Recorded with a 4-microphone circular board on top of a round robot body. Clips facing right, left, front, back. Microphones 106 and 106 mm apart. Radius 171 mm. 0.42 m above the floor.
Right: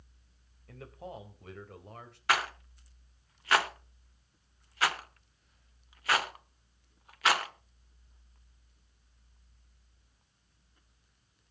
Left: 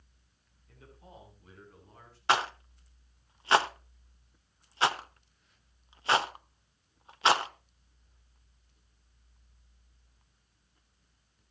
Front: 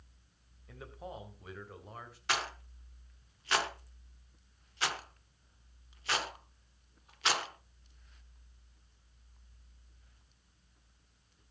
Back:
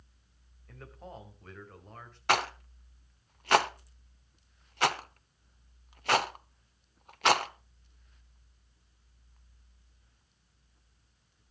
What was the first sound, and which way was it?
A man speaking, 85° right.